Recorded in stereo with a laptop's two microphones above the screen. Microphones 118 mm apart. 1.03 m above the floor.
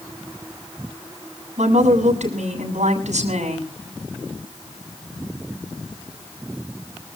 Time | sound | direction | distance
1.6 | a woman speaking | 75° right (ahead or behind) | 7 m